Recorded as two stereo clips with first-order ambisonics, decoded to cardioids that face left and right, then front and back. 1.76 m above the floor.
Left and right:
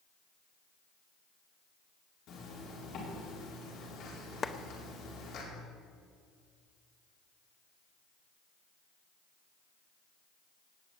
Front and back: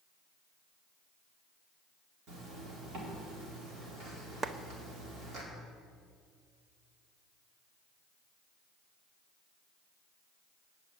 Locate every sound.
2.3 s a zipper: 135° left, 4 m
4.4 s a clap: 135° left, 0.6 m